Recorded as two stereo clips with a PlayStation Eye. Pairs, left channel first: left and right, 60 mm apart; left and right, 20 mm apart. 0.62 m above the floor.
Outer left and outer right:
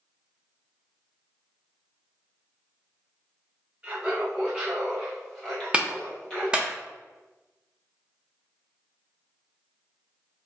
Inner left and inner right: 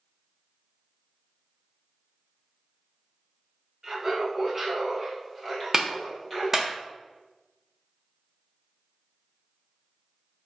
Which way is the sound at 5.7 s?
15° right (ahead or behind).